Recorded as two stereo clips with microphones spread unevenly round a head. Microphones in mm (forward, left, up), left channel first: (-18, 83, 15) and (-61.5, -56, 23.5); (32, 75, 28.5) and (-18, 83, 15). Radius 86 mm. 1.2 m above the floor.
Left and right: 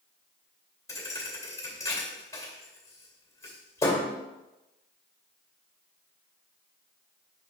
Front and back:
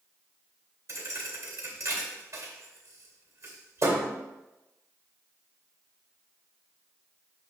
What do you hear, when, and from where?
0.9 s a thud: 145° left, 2 m